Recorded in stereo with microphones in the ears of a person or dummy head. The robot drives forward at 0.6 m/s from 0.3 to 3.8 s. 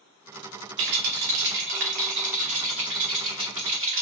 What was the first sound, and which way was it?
A rattle, 60° right (ahead or behind).